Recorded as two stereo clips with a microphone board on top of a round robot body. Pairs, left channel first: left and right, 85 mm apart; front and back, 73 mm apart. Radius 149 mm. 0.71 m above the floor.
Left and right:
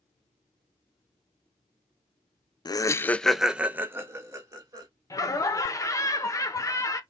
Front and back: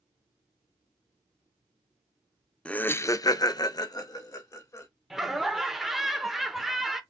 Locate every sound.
2.6 s laughter: 75° left, 0.6 m; by 4.9 s 40° right, 1.5 m
5.1 s laughter: 95° left, 1.1 m